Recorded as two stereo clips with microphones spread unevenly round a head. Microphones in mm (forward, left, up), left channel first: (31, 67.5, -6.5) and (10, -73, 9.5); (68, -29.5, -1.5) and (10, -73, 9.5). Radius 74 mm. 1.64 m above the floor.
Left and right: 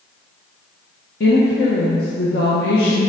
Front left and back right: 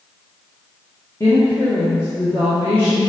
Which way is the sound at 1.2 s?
110° left.